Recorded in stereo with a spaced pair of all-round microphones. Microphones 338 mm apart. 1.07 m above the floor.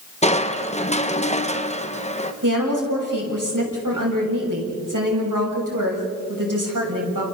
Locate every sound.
0.2 s crushing: 20° left (ahead or behind), 1.2 m
2.4 s a woman speaking: 70° right (ahead or behind), 7.5 m